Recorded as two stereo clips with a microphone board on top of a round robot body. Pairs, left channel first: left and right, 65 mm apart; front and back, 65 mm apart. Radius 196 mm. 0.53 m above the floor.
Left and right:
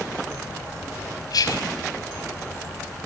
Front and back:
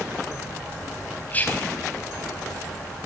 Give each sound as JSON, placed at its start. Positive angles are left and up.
{"t": 1.3, "sound": "whispering", "azimuth_deg": 65, "distance_m": 4.0}